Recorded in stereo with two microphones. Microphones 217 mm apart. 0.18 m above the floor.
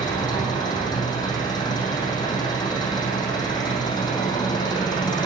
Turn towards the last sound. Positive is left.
turn(degrees=20)  # may be behind; listen again after turning